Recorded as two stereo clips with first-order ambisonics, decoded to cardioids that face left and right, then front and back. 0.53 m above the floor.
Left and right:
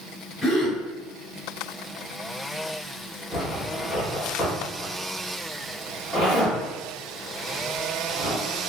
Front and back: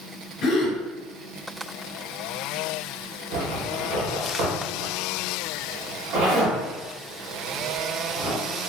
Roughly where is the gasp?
Ahead.